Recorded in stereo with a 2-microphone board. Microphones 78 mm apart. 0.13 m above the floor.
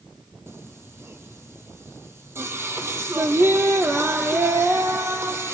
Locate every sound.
0.5 s singing: 35° right (ahead or behind), 0.8 m